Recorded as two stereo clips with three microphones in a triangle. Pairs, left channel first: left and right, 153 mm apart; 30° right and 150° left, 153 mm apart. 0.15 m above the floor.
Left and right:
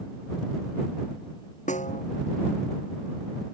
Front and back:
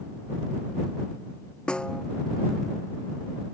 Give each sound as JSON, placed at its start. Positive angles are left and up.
{"t": 1.7, "sound": "a snare drum", "azimuth_deg": 55}